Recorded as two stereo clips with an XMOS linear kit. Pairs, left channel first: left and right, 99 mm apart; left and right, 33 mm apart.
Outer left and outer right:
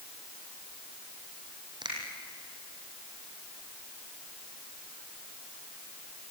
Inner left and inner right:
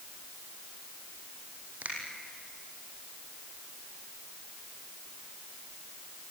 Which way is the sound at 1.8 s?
55° right (ahead or behind).